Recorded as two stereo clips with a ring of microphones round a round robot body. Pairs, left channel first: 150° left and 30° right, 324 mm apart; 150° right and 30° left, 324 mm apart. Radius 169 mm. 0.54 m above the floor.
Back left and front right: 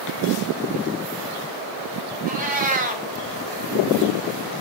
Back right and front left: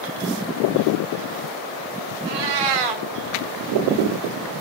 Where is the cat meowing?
35° left, 1.4 m.